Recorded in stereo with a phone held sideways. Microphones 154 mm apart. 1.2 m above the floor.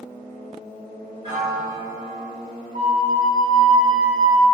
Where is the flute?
50° right (ahead or behind), 1.2 m.